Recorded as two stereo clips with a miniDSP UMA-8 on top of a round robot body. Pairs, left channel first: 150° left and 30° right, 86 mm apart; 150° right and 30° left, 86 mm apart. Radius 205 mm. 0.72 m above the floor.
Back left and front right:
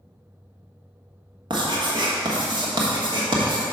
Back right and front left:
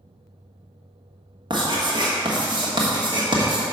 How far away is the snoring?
I don't hear snoring.